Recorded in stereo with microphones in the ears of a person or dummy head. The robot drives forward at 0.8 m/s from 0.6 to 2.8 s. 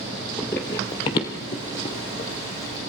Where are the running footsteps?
5° left (ahead or behind), 1.4 m; by 2.3 s 30° left (ahead or behind), 3 m.